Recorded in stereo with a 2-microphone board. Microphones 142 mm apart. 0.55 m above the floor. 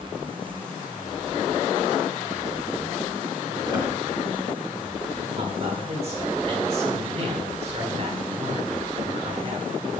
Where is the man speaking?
40° right (ahead or behind), 1.6 m.